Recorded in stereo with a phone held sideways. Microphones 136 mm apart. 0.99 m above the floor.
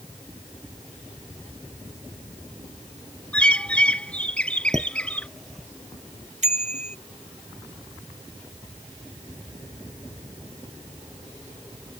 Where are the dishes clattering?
Centre (ahead or behind).